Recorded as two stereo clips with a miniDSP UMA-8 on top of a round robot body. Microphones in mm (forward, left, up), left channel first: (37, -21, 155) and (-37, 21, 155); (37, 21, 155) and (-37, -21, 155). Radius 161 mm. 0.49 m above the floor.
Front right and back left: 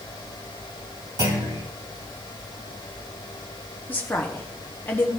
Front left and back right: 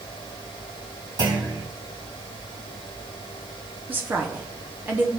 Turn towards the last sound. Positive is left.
turn(degrees=-90)